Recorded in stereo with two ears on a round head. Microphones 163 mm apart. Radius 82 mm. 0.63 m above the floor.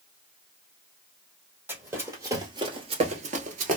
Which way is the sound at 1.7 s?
10° right (ahead or behind).